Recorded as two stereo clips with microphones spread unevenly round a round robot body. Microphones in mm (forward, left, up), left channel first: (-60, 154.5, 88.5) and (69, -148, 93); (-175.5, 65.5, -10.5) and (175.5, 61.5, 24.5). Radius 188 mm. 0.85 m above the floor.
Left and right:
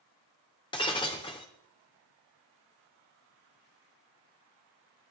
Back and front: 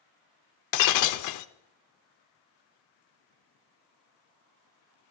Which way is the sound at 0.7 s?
175° right.